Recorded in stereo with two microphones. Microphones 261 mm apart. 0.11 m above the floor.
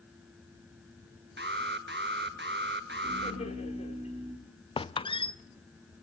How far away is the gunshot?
No gunshot in this recording.